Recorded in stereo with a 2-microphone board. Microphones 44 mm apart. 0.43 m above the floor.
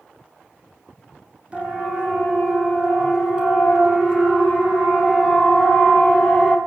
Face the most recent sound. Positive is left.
turn(degrees=0)  # may be behind; listen again after turning